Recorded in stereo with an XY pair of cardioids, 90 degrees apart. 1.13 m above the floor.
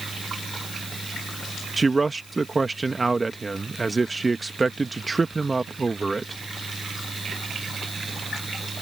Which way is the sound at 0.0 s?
25° right.